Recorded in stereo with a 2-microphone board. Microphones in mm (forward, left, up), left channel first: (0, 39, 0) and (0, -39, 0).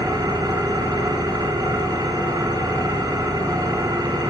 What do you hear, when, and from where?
0.0 s an engine running: 55° right (ahead or behind), 2 m